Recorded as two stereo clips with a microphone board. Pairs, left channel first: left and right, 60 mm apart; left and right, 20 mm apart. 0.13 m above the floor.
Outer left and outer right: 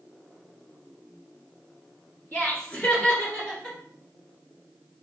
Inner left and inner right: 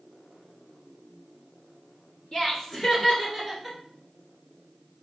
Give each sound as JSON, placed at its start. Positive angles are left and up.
{"t": 2.3, "sound": "laughter", "side_deg": 40, "distance_m": 1.6}